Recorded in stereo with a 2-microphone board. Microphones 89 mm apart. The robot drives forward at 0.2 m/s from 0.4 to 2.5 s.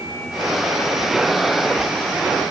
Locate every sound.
Only background noise.